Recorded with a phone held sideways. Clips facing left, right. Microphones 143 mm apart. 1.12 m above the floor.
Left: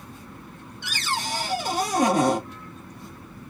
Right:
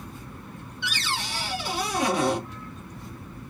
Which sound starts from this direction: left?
A cupboard door, at 0.8 s.